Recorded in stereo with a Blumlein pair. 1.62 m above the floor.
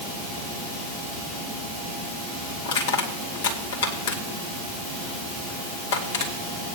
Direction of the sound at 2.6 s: 60° left.